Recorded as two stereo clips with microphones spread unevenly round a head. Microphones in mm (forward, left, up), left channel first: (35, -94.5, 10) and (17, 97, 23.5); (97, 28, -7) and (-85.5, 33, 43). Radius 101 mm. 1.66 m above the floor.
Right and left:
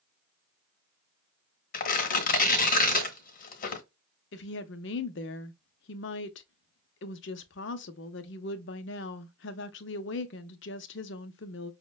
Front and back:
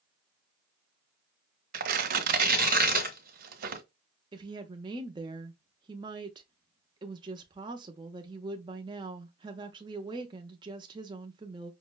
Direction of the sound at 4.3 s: 120° right.